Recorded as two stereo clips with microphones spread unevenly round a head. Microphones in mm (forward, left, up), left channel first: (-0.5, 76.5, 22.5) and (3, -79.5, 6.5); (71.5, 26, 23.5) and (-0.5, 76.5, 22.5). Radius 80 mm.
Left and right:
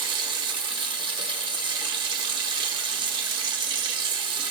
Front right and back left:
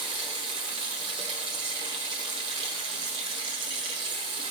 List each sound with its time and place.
0.0 s running water: 150° right, 0.8 m